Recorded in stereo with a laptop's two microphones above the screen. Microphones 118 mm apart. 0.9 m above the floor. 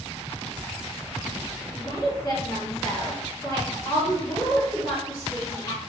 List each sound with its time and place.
1.7 s a woman speaking: 30° left (ahead or behind), 1.1 m